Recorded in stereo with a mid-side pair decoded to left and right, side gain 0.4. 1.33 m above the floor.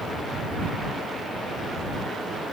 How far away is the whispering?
I don't hear whispering.